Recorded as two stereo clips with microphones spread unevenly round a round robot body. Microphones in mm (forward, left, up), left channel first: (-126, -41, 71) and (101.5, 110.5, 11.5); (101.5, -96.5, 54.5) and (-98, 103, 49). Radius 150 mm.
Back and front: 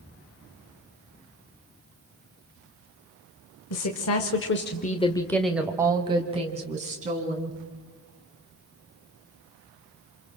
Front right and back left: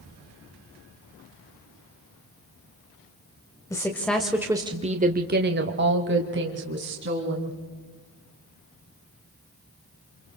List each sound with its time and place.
3.7 s a woman speaking: 120° right, 1.9 m; by 7.6 s 85° left, 4 m